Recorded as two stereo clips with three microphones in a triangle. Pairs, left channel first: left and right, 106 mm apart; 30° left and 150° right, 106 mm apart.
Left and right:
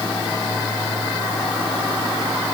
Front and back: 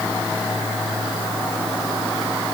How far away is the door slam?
No door slam in this recording.